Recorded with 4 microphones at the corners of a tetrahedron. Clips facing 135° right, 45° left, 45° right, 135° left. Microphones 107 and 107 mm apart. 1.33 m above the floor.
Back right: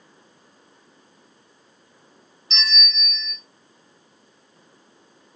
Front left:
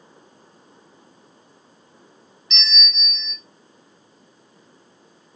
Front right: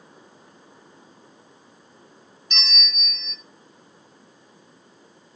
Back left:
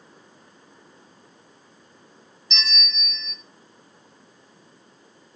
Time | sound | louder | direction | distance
2.5 | a bell | back right 2 dB, back left 1 dB | 80° right | 1.3 m